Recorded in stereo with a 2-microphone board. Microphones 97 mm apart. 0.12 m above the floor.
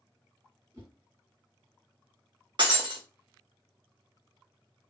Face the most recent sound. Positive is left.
turn(degrees=-55)  # may be behind; listen again after turning